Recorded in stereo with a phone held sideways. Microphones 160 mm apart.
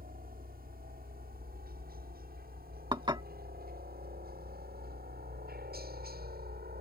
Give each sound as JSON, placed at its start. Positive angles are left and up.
{"t": 0.0, "sound": "a helicopter", "side_deg": -65}
{"t": 2.9, "sound": "dishes clattering", "side_deg": -30}